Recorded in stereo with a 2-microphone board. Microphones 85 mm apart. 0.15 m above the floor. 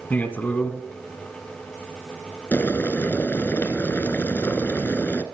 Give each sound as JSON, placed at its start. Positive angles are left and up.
{"t": 0.1, "sound": "a man speaking", "side_deg": 20, "distance_m": 1.1}
{"t": 2.5, "sound": "boiling", "side_deg": 25, "distance_m": 0.8}